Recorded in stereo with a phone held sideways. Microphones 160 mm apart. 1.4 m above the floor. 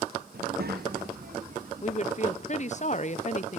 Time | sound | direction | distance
0.3 | a child speaking | 75° right (ahead or behind) | 1.2 m
1.8 | a woman speaking | 45° left (ahead or behind) | 0.7 m